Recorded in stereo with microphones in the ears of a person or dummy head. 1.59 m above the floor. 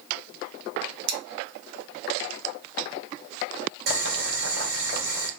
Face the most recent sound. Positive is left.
turn(degrees=-55)  # may be behind; listen again after turning